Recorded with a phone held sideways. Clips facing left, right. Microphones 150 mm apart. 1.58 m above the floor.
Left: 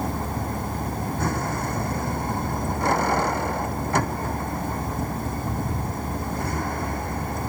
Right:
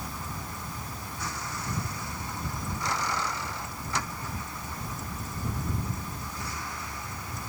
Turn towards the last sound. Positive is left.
turn(degrees=55)  # may be behind; listen again after turning